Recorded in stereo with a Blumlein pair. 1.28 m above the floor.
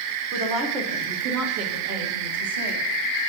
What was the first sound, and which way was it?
A woman speaking, 25° right.